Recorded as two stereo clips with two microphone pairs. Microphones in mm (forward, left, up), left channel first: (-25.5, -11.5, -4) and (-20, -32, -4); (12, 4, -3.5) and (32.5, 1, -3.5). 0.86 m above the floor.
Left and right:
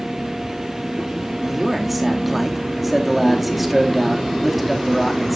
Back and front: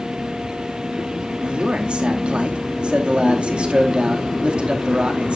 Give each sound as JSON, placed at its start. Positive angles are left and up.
{"t": 1.4, "sound": "a man speaking", "azimuth_deg": 10, "distance_m": 2.0}